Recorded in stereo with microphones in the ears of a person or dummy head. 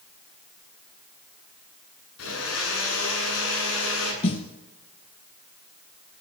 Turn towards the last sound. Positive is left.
turn(degrees=30)  # may be behind; listen again after turning